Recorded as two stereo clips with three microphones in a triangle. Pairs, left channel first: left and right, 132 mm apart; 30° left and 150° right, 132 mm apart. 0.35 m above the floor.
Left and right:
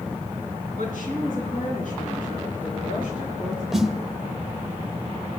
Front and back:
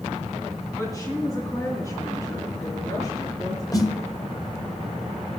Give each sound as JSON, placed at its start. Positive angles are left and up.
{"t": 0.8, "sound": "a woman speaking", "azimuth_deg": 95, "distance_m": 4.0}
{"t": 3.7, "sound": "a snare drum", "azimuth_deg": -5, "distance_m": 1.1}